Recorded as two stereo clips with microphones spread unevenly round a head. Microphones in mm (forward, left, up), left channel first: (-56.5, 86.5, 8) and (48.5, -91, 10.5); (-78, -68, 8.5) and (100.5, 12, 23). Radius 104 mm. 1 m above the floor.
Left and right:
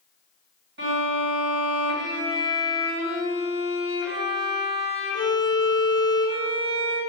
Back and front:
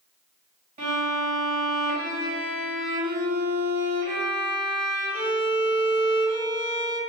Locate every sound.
0.8 s a violin: 25° right, 1.9 m